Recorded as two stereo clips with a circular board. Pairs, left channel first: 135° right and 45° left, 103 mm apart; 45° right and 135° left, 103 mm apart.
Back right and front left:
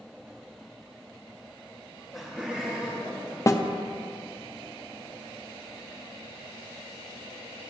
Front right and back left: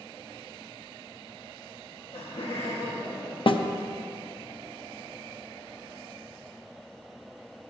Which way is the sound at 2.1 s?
45° right.